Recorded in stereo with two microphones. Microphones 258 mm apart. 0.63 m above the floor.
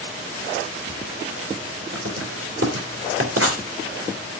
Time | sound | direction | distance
1.9 | writing | 60° right (ahead or behind) | 3 m